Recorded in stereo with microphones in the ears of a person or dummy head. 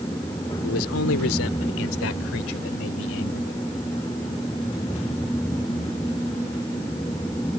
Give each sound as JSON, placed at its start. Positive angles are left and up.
{"t": 0.6, "sound": "a man speaking", "side_deg": 80}